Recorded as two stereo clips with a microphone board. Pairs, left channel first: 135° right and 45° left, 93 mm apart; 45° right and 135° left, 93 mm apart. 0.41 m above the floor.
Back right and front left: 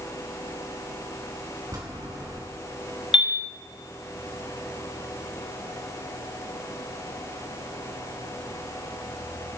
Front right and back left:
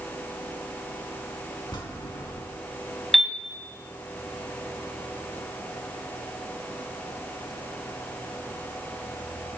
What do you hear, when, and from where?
1.7 s a bell: 5° right, 3 m
3.1 s a piano: 135° right, 1.2 m